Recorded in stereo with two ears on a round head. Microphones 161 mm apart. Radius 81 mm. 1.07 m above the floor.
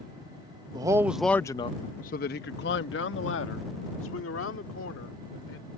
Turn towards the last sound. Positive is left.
turn(degrees=90)